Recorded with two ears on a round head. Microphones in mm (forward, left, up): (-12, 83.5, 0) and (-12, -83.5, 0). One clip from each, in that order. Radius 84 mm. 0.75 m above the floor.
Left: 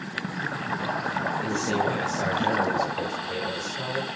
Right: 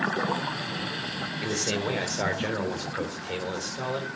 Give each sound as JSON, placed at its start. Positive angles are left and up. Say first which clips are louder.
{"t": 1.4, "sound": "a man speaking", "louder": "right 1 dB", "side_deg": -60, "distance_m": 3.0}